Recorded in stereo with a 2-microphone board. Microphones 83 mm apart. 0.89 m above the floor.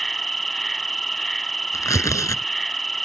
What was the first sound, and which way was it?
An insect, centre (ahead or behind).